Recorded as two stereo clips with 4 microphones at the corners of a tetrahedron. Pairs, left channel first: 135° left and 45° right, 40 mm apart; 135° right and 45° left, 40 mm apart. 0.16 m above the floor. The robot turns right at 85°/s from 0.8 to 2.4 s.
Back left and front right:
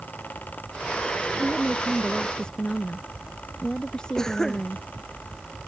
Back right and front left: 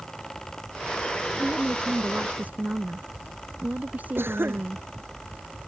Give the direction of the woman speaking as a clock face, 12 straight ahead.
12 o'clock.